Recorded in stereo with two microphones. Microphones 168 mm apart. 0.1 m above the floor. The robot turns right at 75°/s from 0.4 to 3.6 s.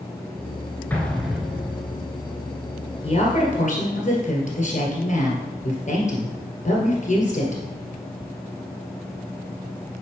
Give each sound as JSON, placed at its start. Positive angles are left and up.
{"t": 0.9, "sound": "an explosion", "side_deg": 10, "distance_m": 0.8}
{"t": 3.0, "sound": "a woman speaking", "azimuth_deg": 55, "distance_m": 1.8}